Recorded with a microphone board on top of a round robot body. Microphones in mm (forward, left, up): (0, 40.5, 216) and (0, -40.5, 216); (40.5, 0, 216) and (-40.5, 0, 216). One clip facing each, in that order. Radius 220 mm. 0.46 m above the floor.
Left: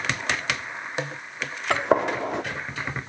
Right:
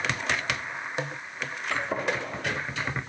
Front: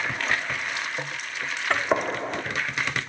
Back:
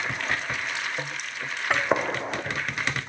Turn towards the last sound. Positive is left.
turn(degrees=95)